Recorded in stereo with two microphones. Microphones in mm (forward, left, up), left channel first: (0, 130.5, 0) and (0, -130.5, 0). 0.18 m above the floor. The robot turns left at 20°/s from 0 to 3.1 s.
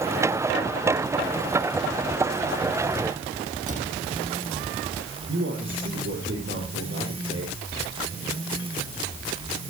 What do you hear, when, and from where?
3.7 s a cupboard door: 30° right (ahead or behind), 6.5 m
5.3 s a man speaking: 50° right (ahead or behind), 5.5 m